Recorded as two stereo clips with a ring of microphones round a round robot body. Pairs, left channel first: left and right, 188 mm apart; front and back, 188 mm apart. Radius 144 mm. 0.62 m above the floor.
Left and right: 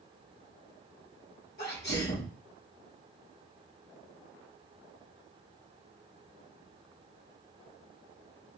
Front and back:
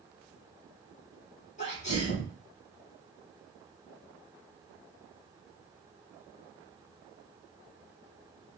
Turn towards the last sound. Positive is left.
turn(degrees=50)